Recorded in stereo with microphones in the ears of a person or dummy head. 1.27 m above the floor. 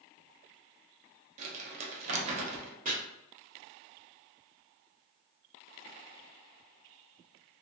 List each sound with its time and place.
1.4 s crumpling: 40° right (ahead or behind), 0.7 m
2.9 s chopping: 45° right (ahead or behind), 0.8 m